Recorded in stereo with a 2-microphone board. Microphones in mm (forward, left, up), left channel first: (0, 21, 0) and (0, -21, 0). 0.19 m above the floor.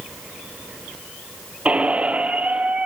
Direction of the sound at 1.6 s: 30° right (ahead or behind).